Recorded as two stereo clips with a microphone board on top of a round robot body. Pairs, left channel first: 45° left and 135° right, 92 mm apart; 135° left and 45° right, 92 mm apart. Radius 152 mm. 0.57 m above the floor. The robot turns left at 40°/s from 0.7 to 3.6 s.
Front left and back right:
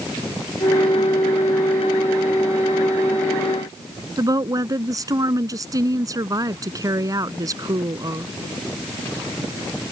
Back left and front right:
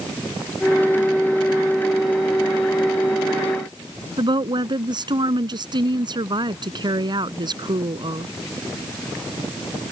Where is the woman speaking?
85° right.